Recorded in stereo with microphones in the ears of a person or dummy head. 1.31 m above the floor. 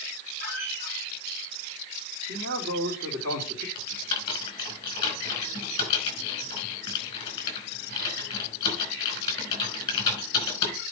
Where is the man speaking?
60° right (ahead or behind), 2.5 m.